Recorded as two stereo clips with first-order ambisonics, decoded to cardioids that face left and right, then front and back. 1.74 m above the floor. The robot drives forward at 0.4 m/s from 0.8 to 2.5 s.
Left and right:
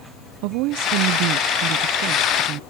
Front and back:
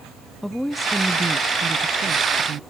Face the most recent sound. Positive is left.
turn(degrees=-130)